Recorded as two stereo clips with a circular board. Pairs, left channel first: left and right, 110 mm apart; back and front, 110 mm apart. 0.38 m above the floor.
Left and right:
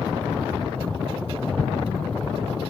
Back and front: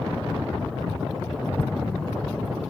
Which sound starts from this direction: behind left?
An explosion, at 1.6 s.